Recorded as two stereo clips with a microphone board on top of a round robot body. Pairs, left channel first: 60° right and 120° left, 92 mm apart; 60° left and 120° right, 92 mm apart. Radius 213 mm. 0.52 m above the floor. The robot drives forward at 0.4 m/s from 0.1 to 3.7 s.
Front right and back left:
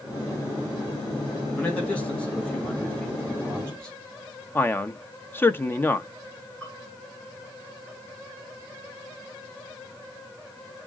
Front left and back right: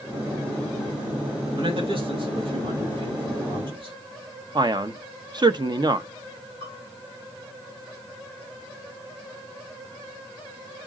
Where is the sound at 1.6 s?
135° right, 4 m; by 4.0 s 145° right, 4.5 m.